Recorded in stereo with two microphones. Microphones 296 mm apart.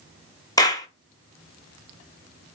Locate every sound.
0.6 s a clap: 10° left (ahead or behind), 0.6 m